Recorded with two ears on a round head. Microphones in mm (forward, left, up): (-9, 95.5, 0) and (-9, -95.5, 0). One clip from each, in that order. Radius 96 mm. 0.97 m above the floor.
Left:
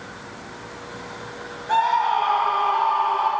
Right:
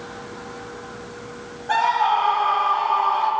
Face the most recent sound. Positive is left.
turn(degrees=-15)  # may be behind; listen again after turning